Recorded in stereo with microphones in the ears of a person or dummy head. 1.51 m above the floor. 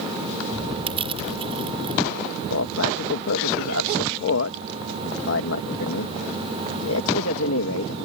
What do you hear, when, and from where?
0.9 s crushing: 35° right (ahead or behind)
2.5 s a man speaking: 80° left